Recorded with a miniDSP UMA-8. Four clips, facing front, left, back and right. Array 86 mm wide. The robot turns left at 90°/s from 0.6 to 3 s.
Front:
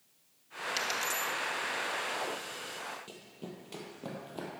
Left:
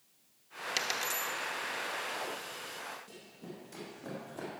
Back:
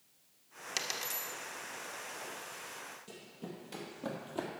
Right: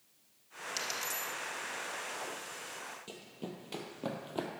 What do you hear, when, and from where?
0.8 s a dropped coin: 105° left, 0.9 m; by 1.3 s 55° left, 0.9 m
3.1 s running footsteps: 60° right, 1.6 m; by 4.5 s 105° right, 1.6 m